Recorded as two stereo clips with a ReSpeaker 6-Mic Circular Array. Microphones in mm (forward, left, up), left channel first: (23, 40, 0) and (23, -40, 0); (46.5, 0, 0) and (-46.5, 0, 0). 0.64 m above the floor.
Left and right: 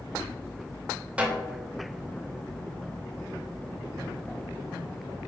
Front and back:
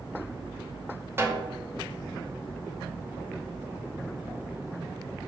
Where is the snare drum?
145° right, 0.7 m.